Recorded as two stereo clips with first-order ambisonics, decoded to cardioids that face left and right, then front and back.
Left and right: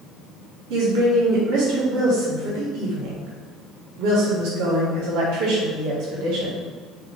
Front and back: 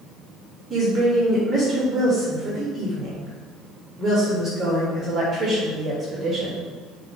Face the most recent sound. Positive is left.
turn(degrees=-100)